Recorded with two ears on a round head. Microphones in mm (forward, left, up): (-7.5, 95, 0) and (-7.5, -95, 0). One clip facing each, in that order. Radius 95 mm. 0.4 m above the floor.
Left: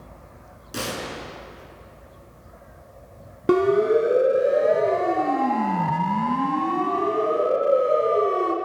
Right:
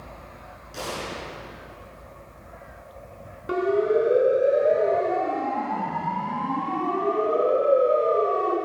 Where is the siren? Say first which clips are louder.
Left 4 dB; 65° left (ahead or behind), 3.5 m; by 8.6 s 35° left (ahead or behind), 3.5 m.